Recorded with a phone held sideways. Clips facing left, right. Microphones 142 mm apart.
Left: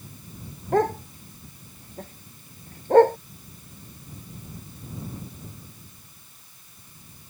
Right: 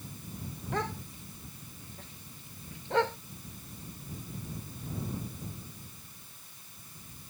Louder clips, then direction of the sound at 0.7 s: Left 13 dB; 45° left (ahead or behind).